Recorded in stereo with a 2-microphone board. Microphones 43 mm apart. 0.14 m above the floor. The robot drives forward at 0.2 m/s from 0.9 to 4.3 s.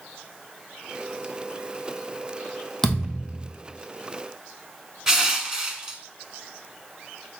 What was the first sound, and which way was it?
A thud, 15° left (ahead or behind).